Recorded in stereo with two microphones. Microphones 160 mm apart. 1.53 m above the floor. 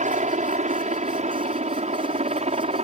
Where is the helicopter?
45° right (ahead or behind); by 2.8 s 40° right (ahead or behind).